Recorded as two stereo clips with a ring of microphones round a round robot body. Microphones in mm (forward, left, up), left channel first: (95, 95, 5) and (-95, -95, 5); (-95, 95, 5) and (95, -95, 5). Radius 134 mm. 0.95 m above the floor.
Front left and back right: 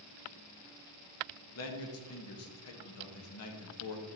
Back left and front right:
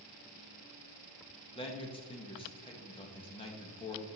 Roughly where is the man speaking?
Ahead left.